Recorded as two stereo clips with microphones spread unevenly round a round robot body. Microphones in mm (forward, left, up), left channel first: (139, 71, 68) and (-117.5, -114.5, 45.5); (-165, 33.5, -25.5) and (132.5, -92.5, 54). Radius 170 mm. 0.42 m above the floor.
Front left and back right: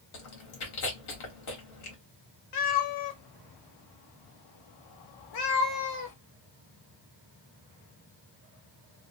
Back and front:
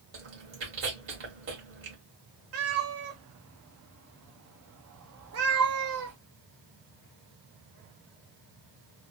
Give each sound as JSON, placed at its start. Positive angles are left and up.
{"t": 0.1, "sound": "chewing", "azimuth_deg": 35, "distance_m": 1.9}
{"t": 2.5, "sound": "a cat meowing", "azimuth_deg": 30, "distance_m": 1.1}